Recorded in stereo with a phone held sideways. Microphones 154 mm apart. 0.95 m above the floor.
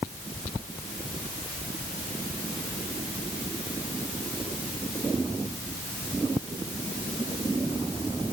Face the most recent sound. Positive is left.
No sound to turn to.